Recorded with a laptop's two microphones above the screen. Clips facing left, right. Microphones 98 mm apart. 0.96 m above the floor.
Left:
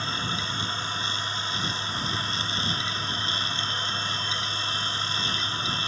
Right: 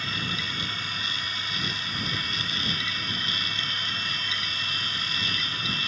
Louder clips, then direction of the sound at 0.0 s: Left 2 dB; 30° left (ahead or behind).